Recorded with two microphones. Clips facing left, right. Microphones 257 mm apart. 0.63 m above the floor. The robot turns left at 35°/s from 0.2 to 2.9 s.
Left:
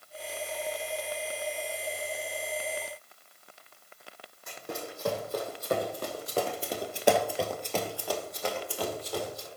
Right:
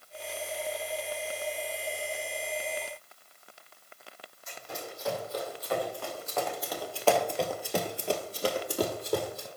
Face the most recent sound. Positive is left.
turn(degrees=-60)  # may be behind; listen again after turning